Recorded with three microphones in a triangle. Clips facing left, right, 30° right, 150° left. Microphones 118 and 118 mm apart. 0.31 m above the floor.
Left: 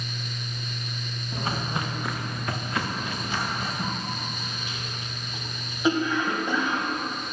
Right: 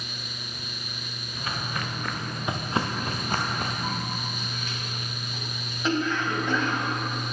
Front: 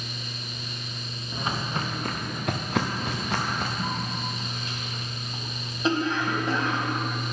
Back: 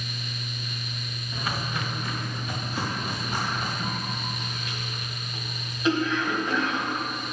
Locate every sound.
1.3 s footsteps: 40° left, 1.4 m; by 3.7 s 55° right, 2.0 m
3.8 s a cough: 15° left, 1.7 m